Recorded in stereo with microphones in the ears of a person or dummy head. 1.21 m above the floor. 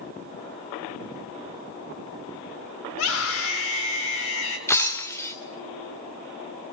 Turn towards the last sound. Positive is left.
turn(degrees=15)  # may be behind; listen again after turning